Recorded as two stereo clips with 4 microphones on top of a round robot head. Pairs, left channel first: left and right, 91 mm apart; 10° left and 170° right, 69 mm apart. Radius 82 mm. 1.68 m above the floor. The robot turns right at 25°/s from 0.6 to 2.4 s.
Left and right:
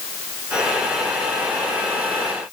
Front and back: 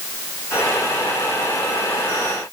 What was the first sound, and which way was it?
Only background noise.